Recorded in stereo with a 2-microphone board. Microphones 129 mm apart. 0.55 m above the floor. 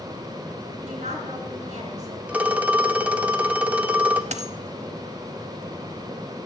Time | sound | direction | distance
0.8 | a woman speaking | 65° right (ahead or behind) | 3.5 m
2.3 | a phone ringing | 10° right (ahead or behind) | 0.7 m
4.3 | a dropped coin | 60° right (ahead or behind) | 0.7 m